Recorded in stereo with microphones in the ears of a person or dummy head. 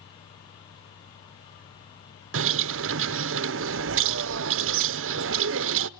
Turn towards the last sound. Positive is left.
turn(degrees=-60)  # may be behind; listen again after turning